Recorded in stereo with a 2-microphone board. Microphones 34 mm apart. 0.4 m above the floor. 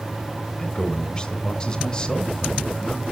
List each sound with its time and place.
0.6 s a man speaking: 25° left (ahead or behind), 1.6 m